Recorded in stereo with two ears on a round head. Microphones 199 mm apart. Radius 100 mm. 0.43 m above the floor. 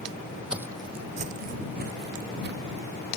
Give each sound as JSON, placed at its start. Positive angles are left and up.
{"t": 0.5, "sound": "footsteps", "side_deg": -5}